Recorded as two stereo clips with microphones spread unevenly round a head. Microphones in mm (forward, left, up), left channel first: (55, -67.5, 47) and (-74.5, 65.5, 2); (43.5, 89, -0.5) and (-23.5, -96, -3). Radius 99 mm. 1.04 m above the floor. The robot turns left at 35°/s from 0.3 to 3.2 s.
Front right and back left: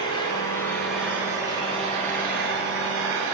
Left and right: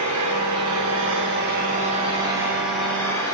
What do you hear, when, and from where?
0.0 s an engine running: 115° right, 8 m; by 3.3 s 145° left, 8 m